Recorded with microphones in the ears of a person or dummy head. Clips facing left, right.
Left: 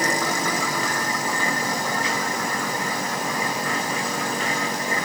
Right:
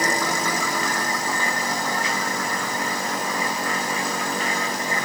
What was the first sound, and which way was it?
Only background noise.